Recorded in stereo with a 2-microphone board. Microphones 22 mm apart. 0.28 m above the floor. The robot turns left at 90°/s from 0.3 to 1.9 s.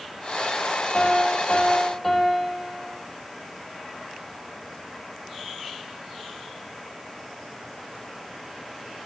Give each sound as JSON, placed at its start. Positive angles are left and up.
{"t": 0.9, "sound": "a piano", "azimuth_deg": 105, "distance_m": 5.5}